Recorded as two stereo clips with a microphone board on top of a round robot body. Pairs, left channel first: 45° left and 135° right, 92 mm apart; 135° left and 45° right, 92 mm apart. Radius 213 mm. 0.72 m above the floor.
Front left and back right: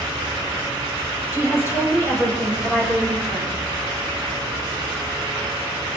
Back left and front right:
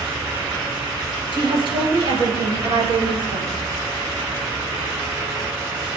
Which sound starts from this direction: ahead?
A woman speaking, at 1.3 s.